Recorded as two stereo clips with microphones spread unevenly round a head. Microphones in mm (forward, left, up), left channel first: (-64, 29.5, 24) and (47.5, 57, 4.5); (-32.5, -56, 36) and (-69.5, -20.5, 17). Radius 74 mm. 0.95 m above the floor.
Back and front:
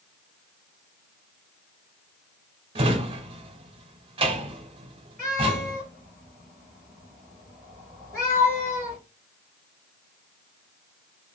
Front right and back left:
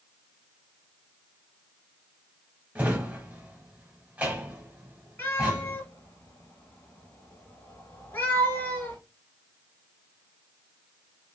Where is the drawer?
45° left, 0.8 m.